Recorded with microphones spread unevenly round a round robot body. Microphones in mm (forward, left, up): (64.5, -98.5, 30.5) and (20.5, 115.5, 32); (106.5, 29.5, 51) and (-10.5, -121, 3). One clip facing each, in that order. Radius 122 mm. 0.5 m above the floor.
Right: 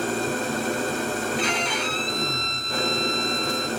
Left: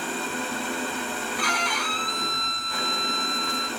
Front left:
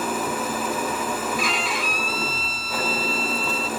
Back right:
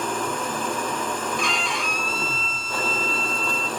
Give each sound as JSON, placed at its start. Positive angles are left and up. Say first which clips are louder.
{"t": 0.0, "sound": "an engine running", "louder": "right 6 dB, front left 1 dB", "azimuth_deg": -35, "distance_m": 1.3}
{"t": 1.4, "sound": "a violin", "louder": "right 4 dB, front left 1 dB", "azimuth_deg": -55, "distance_m": 1.4}